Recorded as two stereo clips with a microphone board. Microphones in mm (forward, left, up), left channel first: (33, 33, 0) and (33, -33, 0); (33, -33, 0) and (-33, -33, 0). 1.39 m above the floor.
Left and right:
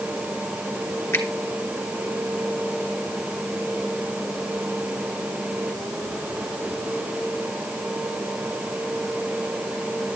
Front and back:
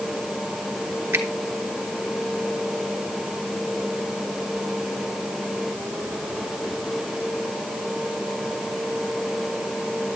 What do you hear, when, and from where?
1.1 s a finger snap: 135° left, 1.5 m